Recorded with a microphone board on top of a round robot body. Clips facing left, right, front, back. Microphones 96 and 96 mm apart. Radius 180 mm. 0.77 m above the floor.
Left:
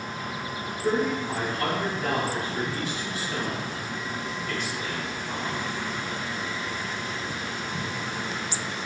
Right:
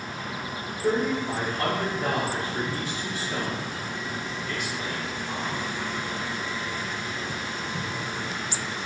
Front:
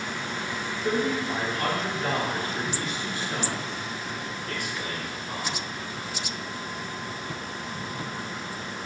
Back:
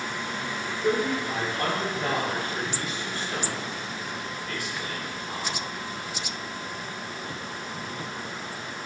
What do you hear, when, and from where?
0.8 s a man speaking: 150° right, 1.8 m; by 5.6 s 5° right, 2 m